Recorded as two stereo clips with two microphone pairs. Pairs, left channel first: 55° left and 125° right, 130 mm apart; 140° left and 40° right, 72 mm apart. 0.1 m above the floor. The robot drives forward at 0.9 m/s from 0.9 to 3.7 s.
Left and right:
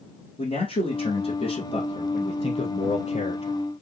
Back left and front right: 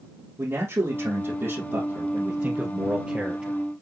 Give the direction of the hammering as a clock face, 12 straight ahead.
No hammering in this recording.